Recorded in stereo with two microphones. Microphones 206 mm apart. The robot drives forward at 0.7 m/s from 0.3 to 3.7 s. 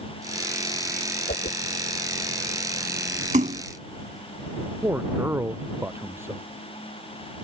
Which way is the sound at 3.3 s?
40° right (ahead or behind).